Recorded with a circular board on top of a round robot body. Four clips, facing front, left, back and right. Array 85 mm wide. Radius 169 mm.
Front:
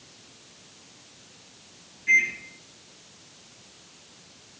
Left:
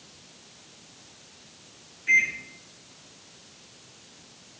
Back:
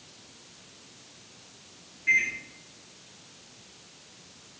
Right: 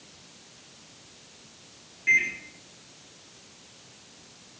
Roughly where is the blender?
No blender in this recording.